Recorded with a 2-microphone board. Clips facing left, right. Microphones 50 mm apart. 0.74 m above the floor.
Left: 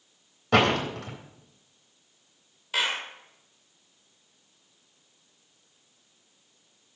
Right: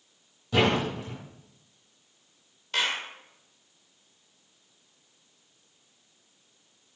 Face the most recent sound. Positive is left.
turn(degrees=5)  # may be behind; listen again after turning